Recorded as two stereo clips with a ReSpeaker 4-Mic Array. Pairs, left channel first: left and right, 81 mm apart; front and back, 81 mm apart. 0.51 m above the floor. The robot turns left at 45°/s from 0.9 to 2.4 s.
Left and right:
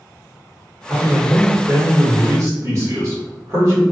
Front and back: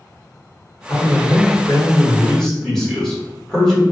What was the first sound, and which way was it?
A man speaking, 15° right.